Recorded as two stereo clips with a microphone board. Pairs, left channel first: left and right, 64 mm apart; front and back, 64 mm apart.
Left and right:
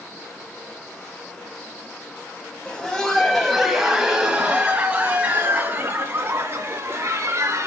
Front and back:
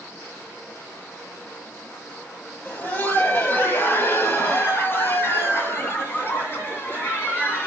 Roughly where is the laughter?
Ahead left.